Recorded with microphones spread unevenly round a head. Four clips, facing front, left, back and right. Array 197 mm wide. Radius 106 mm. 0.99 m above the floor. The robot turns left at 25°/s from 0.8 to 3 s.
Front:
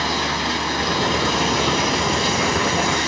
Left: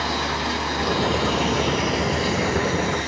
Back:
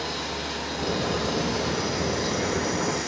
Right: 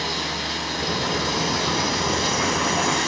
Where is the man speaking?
I don't hear a man speaking.